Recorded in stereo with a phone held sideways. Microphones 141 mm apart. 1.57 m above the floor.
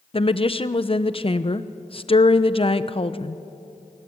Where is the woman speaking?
40° left (ahead or behind), 0.9 m.